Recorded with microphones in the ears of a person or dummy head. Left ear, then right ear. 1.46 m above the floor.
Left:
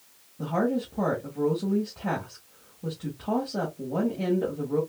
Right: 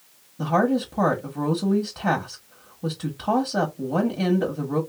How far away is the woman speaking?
About 1.3 m.